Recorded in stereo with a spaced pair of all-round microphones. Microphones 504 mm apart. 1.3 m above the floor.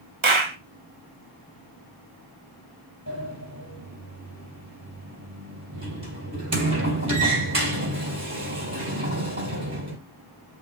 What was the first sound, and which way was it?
A clap, 70° right (ahead or behind).